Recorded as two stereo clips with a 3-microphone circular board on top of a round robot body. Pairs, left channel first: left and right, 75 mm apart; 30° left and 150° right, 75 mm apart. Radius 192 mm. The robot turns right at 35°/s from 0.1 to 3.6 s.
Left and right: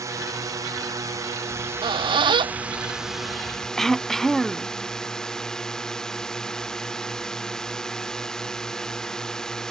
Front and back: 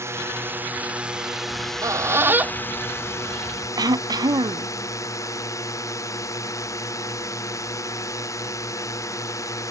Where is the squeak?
115° right; by 3.7 s 40° right.